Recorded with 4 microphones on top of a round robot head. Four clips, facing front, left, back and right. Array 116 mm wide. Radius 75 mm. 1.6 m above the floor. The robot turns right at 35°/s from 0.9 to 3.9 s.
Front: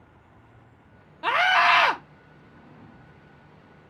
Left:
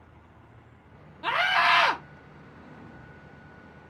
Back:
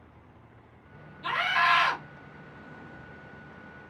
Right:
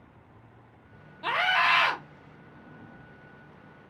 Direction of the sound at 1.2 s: 5° right.